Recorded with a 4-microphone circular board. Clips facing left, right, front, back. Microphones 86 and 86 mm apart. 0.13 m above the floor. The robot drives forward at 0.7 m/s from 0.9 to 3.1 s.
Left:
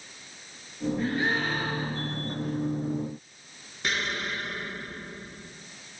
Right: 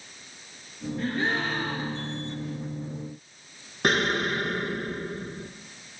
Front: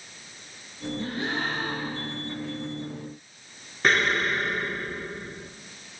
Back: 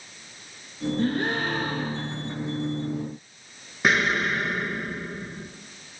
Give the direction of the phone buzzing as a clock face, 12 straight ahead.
No phone buzzing in this recording.